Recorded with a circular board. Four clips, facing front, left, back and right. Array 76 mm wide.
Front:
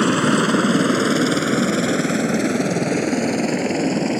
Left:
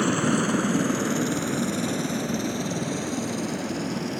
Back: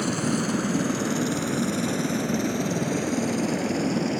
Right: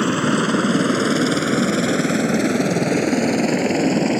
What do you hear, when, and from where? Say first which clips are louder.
0.0 s a helicopter: right 4 dB, front 9 dB; 20° right; by 4.2 s 60° right